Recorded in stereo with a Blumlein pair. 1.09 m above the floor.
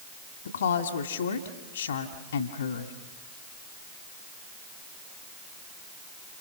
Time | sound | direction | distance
0.5 | a woman speaking | 70° left | 1.8 m